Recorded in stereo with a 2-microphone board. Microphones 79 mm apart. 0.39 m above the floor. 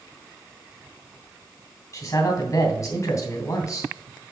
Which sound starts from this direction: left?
A man speaking, at 1.9 s.